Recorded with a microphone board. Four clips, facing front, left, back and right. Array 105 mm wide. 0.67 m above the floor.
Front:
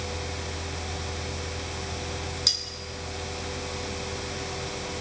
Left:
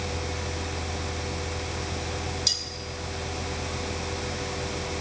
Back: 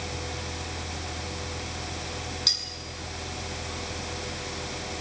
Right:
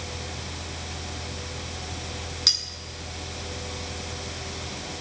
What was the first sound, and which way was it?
Cutlery clinking, 80° right.